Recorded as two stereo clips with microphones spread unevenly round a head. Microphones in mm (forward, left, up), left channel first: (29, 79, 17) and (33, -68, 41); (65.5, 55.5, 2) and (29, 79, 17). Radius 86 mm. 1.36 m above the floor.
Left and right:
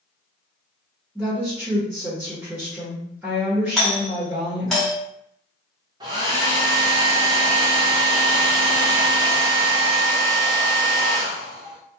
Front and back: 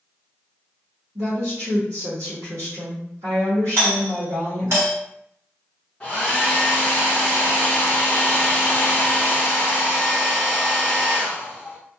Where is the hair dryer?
120° right, 0.5 m.